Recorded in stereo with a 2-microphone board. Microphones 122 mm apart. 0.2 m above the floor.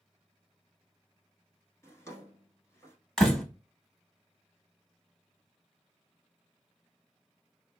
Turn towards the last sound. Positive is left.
turn(degrees=5)  # may be behind; listen again after turning